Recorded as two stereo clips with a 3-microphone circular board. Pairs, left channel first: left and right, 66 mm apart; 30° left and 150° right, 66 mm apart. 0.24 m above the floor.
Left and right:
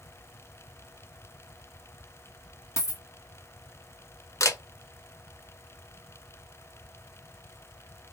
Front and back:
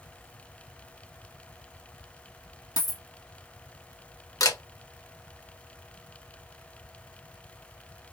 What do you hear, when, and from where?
2.8 s a dropped coin: 45° left, 1.3 m
4.4 s a camera shutter: 50° left, 1.0 m